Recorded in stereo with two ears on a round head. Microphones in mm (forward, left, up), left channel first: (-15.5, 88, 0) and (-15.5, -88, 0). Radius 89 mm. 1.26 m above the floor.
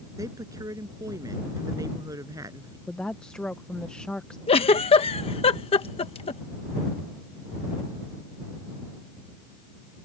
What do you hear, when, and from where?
0.2 s a woman speaking: 15° right (ahead or behind)
2.9 s a woman speaking: 5° left (ahead or behind)
4.5 s a giggle: 30° left (ahead or behind)